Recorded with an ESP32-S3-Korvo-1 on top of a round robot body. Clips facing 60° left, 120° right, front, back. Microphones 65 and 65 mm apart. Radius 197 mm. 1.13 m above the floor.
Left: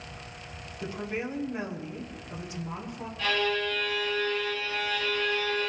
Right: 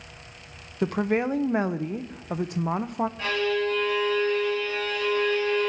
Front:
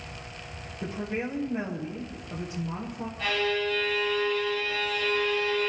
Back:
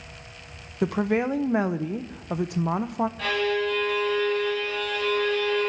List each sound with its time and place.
0.8 s a woman speaking: 155° right, 0.8 m
3.2 s a violin: straight behind, 8 m